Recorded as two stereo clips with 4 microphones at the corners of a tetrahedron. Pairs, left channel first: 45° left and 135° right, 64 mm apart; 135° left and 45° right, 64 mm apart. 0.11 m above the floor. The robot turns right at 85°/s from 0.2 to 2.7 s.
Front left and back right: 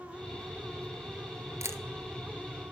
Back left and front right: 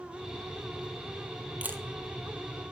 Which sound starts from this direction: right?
A camera shutter, at 1.6 s.